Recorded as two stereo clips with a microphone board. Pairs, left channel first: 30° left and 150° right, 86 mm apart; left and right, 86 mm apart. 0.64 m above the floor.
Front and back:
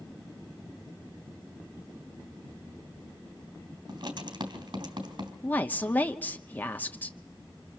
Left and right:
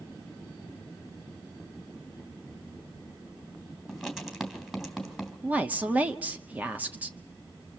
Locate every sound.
3.9 s writing: 175° right, 2.5 m
5.4 s a woman speaking: 30° right, 1.0 m